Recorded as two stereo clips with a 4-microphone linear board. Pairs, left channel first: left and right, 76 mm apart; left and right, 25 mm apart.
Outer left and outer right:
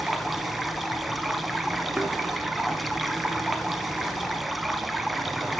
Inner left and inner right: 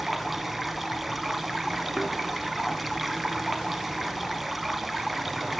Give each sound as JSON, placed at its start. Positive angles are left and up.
{"t": 0.0, "sound": "running water", "side_deg": 0, "distance_m": 0.8}
{"t": 2.0, "sound": "a thud", "side_deg": -10, "distance_m": 1.9}